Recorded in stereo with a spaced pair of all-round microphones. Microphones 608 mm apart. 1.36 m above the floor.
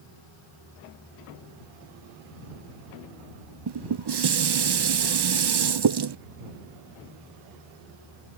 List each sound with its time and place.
3.7 s dishes clattering: 45° right (ahead or behind)